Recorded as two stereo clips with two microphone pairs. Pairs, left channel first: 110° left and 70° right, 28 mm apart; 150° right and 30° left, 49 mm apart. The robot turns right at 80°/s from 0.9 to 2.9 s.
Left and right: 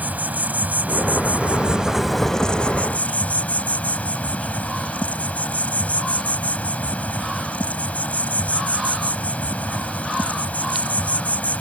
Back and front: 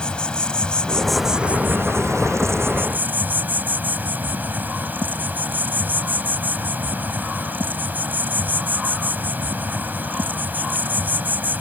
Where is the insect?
80° right; by 11.6 s 80° left.